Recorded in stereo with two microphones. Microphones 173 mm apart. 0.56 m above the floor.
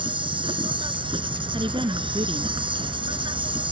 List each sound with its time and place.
0.0 s an insect: 30° right (ahead or behind)
1.5 s a woman speaking: 30° right (ahead or behind)